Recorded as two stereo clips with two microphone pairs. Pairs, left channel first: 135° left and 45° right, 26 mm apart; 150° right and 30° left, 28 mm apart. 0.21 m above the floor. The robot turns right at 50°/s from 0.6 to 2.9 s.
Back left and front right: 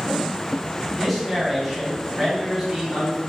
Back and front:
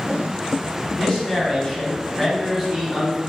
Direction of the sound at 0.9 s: 145° right.